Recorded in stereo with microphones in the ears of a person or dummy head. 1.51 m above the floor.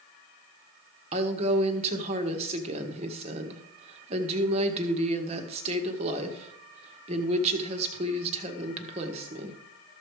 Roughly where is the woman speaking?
Right.